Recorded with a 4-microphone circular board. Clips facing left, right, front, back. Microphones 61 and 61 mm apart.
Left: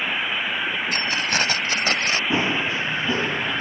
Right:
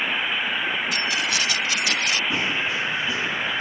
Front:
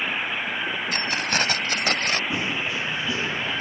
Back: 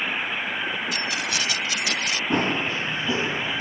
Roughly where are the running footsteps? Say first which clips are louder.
Left 2 dB, back 3 dB; behind left.